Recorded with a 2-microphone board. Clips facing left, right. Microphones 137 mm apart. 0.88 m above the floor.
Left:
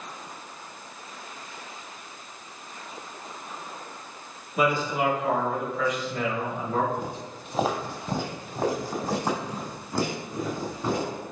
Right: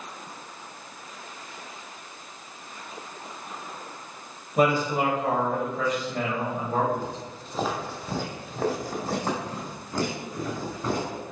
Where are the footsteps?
15° left (ahead or behind), 1.4 m; by 11.2 s 10° left (ahead or behind), 3.5 m.